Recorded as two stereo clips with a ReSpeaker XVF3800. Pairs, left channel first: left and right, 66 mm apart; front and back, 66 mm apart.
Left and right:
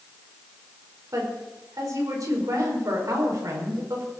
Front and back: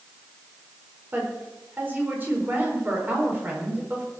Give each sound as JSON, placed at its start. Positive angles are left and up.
{"t": 1.1, "sound": "a woman speaking", "azimuth_deg": -120, "distance_m": 5.0}